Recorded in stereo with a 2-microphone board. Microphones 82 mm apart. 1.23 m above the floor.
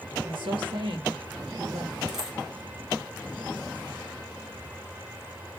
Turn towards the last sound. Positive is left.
turn(degrees=-5)  # may be behind; listen again after turning